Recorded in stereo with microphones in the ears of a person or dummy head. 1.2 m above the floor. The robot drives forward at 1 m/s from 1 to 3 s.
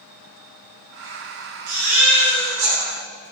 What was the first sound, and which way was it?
A baby crying, 85° right.